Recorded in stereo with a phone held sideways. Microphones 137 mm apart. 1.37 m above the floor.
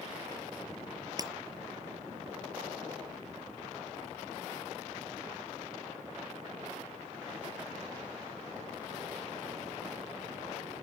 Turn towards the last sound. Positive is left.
turn(degrees=-30)  # may be behind; listen again after turning